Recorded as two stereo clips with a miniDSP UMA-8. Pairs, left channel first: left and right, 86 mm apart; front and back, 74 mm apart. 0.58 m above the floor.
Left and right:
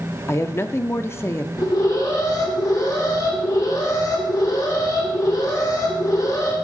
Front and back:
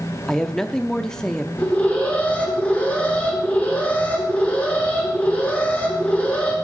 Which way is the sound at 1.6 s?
65° left.